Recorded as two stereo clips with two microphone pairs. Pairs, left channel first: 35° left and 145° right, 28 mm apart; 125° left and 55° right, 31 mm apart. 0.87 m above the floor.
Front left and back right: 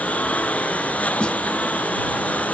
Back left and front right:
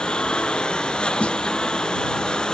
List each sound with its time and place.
0.0 s a lawn mower: 65° left
1.2 s a snare drum: 80° left